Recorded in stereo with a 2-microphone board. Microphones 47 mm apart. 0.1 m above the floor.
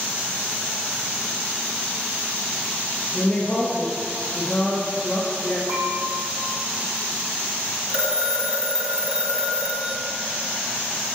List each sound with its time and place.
3.1 s a woman speaking: 20° left (ahead or behind), 2.5 m
5.7 s dishes clattering: 70° right (ahead or behind), 2.5 m
7.9 s a phone ringing: 25° right (ahead or behind), 1.2 m